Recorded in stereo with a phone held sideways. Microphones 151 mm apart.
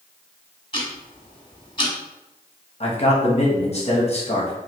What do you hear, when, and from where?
0.7 s ticking: 35° left (ahead or behind), 1.0 m
2.8 s a man speaking: 45° left (ahead or behind), 1.0 m